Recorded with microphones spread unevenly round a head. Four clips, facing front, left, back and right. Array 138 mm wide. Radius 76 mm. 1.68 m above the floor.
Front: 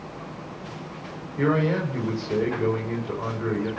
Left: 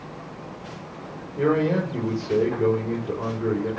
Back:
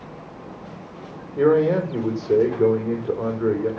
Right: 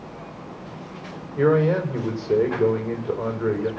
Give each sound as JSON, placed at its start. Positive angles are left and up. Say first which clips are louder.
{"t": 1.4, "sound": "a man speaking", "louder": "right 3 dB, back 6 dB", "azimuth_deg": -175, "distance_m": 5.0}